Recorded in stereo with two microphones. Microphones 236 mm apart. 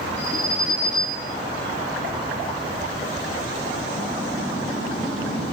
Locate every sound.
0.2 s an alarm: 85° right, 9 m